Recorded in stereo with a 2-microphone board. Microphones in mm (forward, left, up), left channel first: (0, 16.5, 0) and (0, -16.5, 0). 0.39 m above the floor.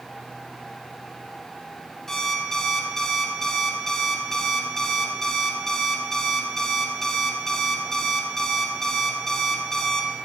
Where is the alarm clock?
15° left (ahead or behind), 1.6 m.